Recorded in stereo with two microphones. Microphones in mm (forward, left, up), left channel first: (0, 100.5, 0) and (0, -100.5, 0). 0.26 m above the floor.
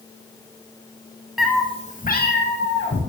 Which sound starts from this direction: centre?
A cat meowing, at 1.4 s.